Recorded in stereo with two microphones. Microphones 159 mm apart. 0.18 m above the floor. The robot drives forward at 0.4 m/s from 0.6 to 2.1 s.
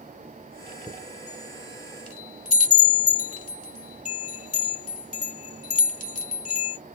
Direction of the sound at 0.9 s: 35° left (ahead or behind).